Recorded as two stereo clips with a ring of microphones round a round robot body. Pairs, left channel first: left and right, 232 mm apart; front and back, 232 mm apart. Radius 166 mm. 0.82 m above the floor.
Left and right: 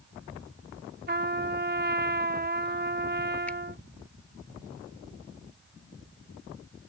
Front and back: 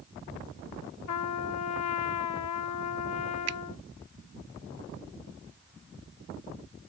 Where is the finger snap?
175° left.